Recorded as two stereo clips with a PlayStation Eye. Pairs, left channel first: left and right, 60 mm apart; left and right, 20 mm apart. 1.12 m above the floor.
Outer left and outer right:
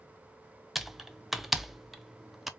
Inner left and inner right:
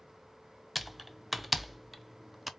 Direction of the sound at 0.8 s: 5° right (ahead or behind).